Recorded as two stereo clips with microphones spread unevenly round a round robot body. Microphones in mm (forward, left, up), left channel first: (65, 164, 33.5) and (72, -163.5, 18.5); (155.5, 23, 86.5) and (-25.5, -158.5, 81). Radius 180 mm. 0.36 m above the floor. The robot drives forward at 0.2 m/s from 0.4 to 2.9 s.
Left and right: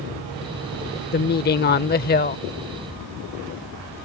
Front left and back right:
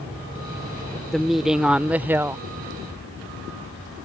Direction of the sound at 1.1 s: 135° left.